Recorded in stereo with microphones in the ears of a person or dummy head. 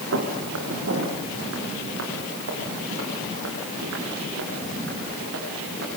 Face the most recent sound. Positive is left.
turn(degrees=-65)  # may be behind; listen again after turning